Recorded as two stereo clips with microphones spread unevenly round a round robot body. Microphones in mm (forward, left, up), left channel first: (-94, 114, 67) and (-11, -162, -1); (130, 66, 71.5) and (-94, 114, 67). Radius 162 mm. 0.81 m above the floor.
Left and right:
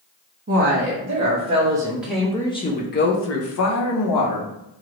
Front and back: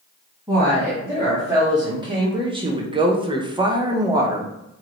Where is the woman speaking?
115° right, 1.4 m; by 4.5 s 95° left, 1.2 m.